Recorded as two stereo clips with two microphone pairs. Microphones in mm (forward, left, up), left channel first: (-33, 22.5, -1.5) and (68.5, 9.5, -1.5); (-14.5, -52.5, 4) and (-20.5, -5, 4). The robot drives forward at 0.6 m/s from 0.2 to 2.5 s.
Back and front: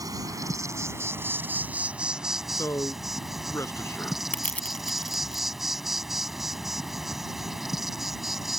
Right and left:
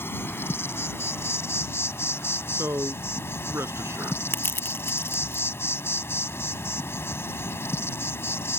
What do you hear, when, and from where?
0.0 s an insect: 55° right; by 8.6 s 95° right
2.5 s a man speaking: 110° left
4.3 s crushing: 110° right